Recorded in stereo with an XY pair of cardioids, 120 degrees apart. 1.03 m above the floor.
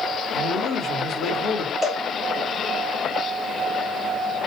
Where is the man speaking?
65° left, 1.1 m.